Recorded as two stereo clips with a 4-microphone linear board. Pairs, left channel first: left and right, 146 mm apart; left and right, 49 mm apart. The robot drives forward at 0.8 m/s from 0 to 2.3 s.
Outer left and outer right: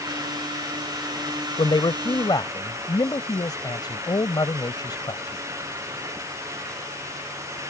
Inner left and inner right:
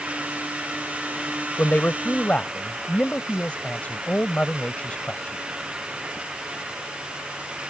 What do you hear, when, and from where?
1.6 s a man speaking: 35° left (ahead or behind); by 5.4 s 30° left (ahead or behind)